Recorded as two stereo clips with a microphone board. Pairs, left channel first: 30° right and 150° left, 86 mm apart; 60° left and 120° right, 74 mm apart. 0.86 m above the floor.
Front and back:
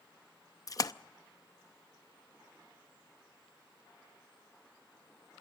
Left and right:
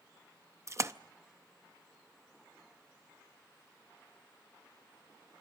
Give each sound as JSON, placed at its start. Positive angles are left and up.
{"t": 0.7, "sound": "a splash", "azimuth_deg": -70, "distance_m": 0.6}